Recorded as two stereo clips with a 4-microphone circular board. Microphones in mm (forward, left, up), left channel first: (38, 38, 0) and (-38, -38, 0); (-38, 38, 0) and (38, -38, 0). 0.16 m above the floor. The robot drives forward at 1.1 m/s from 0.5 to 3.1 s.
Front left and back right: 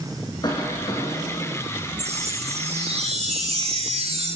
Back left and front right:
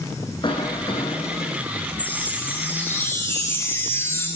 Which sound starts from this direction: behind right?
A chime, at 2.0 s.